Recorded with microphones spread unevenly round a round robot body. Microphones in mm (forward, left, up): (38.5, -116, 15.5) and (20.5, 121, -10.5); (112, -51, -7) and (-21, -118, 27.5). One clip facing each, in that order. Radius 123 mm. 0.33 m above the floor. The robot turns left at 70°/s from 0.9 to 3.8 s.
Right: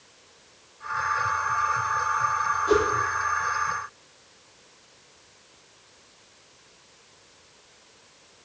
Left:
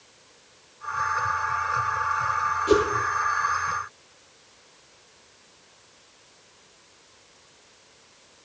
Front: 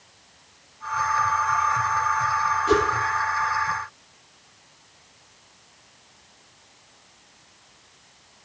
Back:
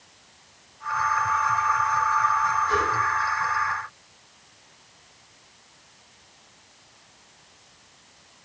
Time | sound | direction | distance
2.7 | a whoosh | 45° left | 2.5 m